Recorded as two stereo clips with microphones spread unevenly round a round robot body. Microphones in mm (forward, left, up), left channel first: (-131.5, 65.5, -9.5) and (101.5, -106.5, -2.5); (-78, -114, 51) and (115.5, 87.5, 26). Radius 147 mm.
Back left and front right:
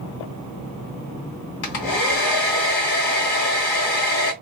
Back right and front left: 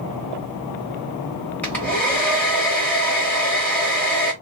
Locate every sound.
1.6 s a hair dryer: 140° left, 1.3 m